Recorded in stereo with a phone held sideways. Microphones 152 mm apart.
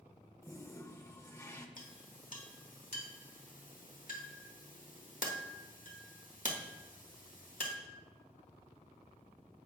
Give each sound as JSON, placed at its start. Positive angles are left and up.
{"t": 0.4, "sound": "a toilet flushing", "side_deg": 20, "distance_m": 0.6}
{"t": 1.8, "sound": "a clink", "side_deg": 60, "distance_m": 1.0}